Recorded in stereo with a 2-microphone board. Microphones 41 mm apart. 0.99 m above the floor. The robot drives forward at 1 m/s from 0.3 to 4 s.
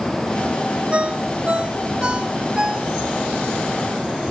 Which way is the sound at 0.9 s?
35° right (ahead or behind).